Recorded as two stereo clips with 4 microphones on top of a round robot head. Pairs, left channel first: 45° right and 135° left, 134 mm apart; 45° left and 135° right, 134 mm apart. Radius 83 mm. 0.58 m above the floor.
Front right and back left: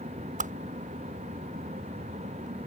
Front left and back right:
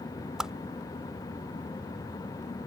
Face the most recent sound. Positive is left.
turn(degrees=140)